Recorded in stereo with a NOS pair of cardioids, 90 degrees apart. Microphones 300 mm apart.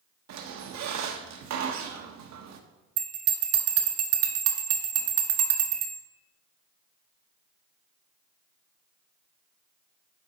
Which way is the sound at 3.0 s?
55° right.